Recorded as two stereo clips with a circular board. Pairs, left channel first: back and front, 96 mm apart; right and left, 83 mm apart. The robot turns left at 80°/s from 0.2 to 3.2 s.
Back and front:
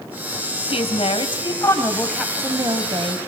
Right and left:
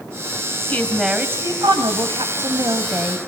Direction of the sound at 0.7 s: 155° right.